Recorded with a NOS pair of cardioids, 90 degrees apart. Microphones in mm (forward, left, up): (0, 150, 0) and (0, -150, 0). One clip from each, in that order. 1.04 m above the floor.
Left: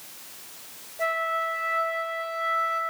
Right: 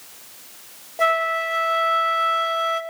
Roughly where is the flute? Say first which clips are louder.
Right 6 dB; right.